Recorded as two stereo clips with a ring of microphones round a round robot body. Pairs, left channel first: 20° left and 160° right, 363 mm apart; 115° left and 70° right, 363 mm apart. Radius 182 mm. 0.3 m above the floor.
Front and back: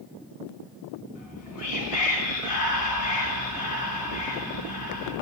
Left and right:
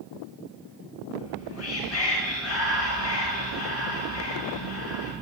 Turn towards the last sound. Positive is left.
turn(degrees=65)